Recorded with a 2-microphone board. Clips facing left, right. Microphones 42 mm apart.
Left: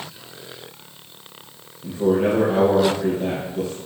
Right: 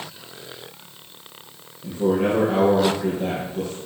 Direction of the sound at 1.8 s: 5° right (ahead or behind).